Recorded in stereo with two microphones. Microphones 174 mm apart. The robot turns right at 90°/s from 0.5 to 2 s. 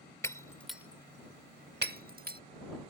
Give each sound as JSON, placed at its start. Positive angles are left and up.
{"t": 0.2, "sound": "breaking glass", "side_deg": 15}